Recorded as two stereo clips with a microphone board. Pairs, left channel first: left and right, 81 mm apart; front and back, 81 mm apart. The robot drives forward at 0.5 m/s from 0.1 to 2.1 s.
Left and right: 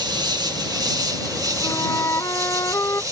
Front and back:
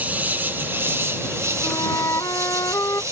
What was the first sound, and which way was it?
An insect, 115° right.